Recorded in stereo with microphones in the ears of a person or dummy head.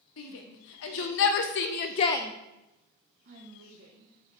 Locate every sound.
0.2 s a shout: 70° left (ahead or behind), 1.9 m; by 4.4 s 55° right (ahead or behind), 2.0 m